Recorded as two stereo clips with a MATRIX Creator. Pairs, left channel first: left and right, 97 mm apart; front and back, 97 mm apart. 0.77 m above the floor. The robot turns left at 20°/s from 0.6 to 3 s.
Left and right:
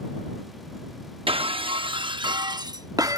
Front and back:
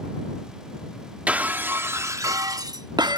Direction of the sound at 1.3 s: 105° right.